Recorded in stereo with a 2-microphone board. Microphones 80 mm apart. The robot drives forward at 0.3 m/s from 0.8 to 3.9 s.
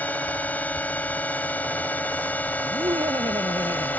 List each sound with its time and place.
0.0 s a drone: 20° left (ahead or behind)
2.6 s laughter: 80° right; by 4.0 s 75° right (ahead or behind)